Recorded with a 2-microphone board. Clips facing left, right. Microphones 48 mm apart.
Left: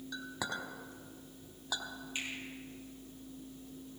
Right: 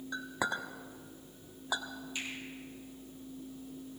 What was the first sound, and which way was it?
A clink, 25° right (ahead or behind).